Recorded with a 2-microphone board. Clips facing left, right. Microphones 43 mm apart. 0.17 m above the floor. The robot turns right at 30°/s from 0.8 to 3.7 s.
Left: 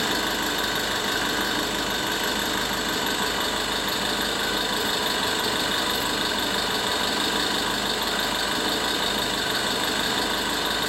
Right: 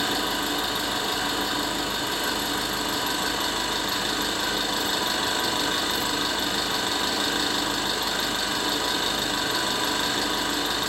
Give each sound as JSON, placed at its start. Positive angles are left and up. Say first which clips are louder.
{"t": 0.0, "sound": "an engine running", "louder": "left 1 dB", "azimuth_deg": 70, "distance_m": 1.6}